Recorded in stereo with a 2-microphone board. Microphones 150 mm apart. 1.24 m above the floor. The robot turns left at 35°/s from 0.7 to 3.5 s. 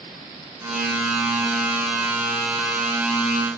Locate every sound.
Only background noise.